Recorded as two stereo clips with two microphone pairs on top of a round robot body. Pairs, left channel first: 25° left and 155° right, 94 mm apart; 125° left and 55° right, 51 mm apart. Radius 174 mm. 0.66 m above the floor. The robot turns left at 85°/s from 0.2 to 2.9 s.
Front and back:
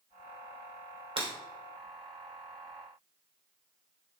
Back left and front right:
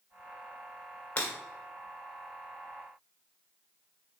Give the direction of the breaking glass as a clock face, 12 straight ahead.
6 o'clock.